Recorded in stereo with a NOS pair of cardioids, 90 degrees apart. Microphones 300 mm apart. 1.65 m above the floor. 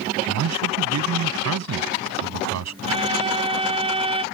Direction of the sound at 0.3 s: 60° right.